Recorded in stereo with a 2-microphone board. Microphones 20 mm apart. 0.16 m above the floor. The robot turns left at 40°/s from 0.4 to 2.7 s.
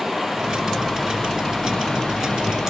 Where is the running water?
165° right, 1.2 m; by 2.7 s 105° left, 1.2 m.